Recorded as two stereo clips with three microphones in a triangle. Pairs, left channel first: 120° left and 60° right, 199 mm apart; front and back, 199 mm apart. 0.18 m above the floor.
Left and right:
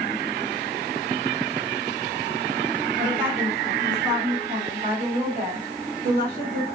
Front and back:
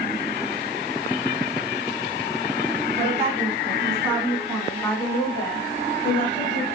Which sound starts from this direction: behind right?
A woman speaking, at 3.0 s.